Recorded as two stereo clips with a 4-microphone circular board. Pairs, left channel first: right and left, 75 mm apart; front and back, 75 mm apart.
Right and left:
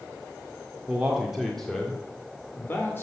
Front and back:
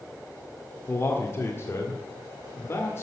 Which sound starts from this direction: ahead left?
A man speaking, at 0.9 s.